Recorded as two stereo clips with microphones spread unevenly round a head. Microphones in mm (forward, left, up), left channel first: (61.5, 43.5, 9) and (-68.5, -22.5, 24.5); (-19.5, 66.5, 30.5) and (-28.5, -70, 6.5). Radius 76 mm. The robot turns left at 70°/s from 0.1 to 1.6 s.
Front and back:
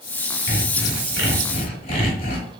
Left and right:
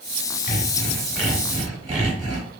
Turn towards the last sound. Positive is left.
turn(degrees=-25)